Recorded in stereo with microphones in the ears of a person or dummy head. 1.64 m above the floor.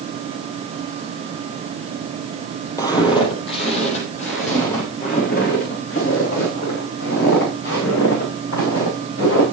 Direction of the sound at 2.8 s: 15° left (ahead or behind).